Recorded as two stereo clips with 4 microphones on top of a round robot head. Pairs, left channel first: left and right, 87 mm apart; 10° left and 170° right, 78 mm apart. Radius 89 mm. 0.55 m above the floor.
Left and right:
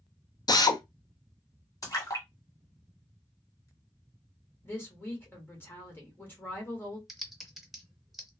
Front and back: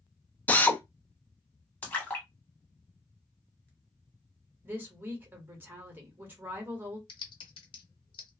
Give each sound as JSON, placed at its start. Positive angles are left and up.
{"t": 0.5, "sound": "a drill", "azimuth_deg": 75, "distance_m": 0.7}
{"t": 1.8, "sound": "a splash", "azimuth_deg": 70, "distance_m": 1.6}
{"t": 4.6, "sound": "a woman speaking", "azimuth_deg": 140, "distance_m": 1.4}
{"t": 7.1, "sound": "typing on a keyboard", "azimuth_deg": 0, "distance_m": 0.7}